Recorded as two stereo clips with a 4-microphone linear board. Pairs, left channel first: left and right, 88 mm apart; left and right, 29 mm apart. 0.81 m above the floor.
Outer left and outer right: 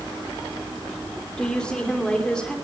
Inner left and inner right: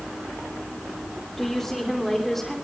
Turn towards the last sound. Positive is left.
turn(degrees=10)  # may be behind; listen again after turning